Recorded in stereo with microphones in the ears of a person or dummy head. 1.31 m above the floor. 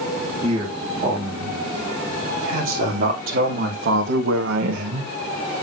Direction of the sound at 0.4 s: 35° right (ahead or behind).